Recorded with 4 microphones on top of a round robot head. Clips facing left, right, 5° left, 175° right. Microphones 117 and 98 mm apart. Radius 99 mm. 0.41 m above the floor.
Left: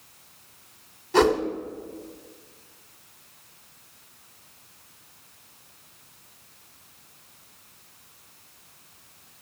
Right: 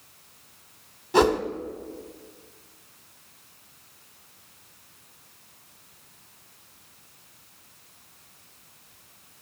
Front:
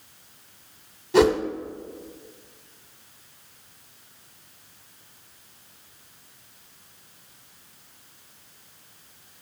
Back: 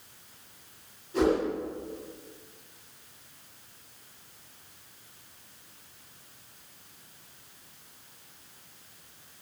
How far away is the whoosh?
About 1.0 m.